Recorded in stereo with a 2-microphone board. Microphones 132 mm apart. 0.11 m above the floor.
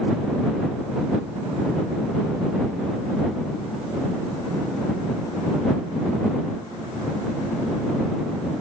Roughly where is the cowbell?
No cowbell in this recording.